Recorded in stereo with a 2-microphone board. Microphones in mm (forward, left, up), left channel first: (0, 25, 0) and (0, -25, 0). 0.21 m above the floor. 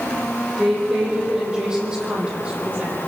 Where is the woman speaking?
5° right (ahead or behind), 8.5 m; by 3.0 s 30° right (ahead or behind), 7 m.